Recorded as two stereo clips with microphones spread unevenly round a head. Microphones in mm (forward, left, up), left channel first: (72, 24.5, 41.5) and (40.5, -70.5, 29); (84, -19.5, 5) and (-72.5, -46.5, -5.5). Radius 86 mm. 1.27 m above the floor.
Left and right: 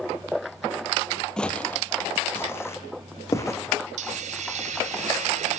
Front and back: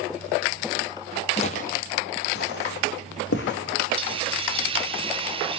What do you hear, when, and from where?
1.4 s footsteps: straight ahead, 1.6 m; by 3.6 s 15° left, 4.5 m
4.0 s a hiss: 115° right, 2.5 m